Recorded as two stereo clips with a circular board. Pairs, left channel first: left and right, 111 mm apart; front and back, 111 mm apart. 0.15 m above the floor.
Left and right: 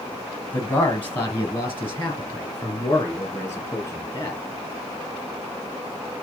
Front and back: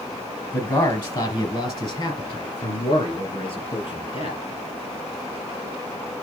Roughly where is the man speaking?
Ahead left.